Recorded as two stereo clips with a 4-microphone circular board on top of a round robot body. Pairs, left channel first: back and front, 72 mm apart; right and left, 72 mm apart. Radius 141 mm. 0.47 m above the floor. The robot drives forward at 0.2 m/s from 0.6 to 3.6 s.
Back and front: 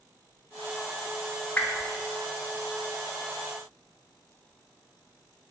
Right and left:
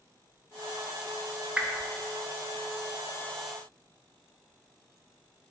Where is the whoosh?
145° left, 0.7 m; by 1.9 s 150° left, 0.7 m.